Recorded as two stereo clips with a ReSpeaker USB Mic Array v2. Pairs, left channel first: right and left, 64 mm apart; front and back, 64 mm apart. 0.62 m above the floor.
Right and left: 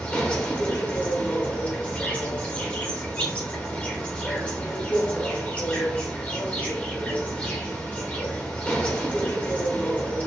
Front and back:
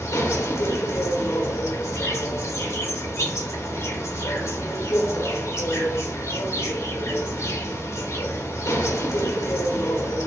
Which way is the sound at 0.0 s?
30° right.